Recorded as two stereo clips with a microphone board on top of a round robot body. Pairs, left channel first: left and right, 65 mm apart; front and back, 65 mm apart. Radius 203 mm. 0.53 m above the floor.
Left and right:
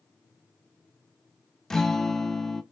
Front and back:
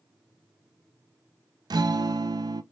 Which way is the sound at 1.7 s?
170° left.